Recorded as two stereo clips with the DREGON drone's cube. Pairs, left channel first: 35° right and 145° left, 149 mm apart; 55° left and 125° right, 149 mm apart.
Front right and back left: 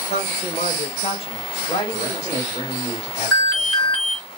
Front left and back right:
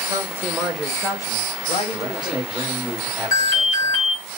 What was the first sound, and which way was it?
A man speaking, 60° right.